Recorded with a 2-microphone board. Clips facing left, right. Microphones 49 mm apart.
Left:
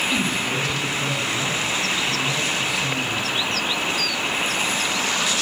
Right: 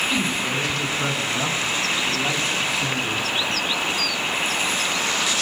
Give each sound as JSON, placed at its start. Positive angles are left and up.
{"t": 0.1, "sound": "a man speaking", "side_deg": -10, "distance_m": 2.0}